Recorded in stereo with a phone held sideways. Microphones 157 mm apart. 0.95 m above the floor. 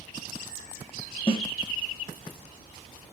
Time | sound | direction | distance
1.3 | a snare drum | 35° left (ahead or behind) | 0.9 m